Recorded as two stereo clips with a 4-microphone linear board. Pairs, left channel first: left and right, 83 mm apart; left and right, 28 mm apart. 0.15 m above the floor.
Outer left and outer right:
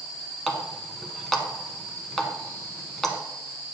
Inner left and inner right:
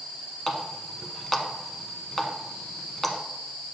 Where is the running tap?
5° left (ahead or behind), 0.8 m.